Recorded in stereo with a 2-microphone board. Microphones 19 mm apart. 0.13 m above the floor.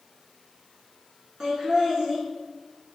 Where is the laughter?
35° right (ahead or behind), 1.5 m.